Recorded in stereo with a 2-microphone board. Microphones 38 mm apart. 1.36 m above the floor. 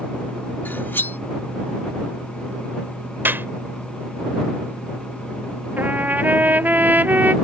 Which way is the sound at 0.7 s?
70° left (ahead or behind).